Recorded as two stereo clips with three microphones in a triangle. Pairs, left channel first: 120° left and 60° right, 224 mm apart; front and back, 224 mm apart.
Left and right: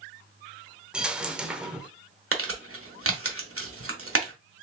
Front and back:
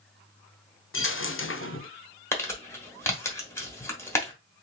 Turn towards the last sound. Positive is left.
turn(degrees=-80)